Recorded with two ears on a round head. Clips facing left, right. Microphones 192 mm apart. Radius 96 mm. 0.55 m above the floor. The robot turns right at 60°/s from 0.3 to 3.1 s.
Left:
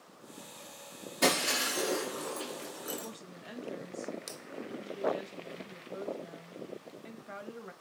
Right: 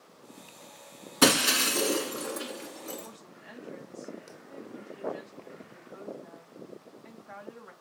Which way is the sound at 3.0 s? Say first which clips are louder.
Left 3 dB; 50° left (ahead or behind).